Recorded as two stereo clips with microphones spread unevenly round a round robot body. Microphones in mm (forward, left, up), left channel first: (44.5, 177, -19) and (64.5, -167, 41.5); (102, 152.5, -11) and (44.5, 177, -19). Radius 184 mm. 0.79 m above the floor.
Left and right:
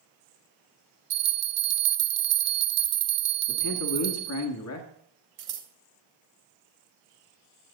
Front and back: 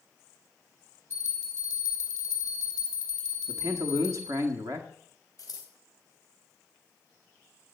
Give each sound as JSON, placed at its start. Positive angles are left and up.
{"t": 1.1, "sound": "a bell", "azimuth_deg": -140, "distance_m": 0.8}
{"t": 3.5, "sound": "a man speaking", "azimuth_deg": 135, "distance_m": 1.3}
{"t": 5.4, "sound": "scissors", "azimuth_deg": -145, "distance_m": 1.4}